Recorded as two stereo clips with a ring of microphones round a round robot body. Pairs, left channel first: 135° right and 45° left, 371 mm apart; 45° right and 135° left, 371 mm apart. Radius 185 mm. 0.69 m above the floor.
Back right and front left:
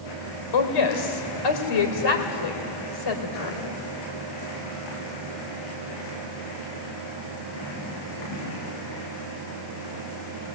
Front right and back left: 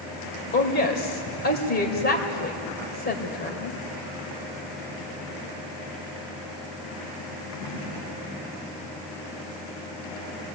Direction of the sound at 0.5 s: 110° right.